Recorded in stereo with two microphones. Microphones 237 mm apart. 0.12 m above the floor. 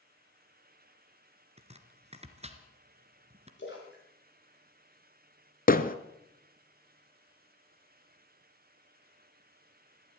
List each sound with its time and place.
1.6 s chopping: 25° right (ahead or behind), 1.8 m
3.6 s a splash: 55° left (ahead or behind), 10 m
5.7 s hammering: 40° left (ahead or behind), 1.0 m